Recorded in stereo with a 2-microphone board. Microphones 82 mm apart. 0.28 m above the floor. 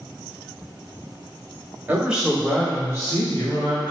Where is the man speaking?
20° right (ahead or behind), 1.1 m; by 3.9 s 55° left (ahead or behind), 2 m.